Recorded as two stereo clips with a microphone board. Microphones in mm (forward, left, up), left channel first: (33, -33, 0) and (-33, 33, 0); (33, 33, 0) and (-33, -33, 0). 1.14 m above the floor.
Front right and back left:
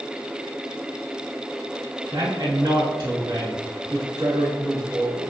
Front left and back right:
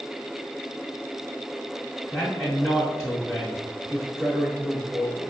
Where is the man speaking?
145° left, 0.8 m.